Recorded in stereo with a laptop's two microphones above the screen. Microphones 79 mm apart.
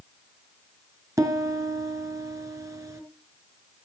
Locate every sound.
1.2 s a piano: 40° right (ahead or behind), 2.5 m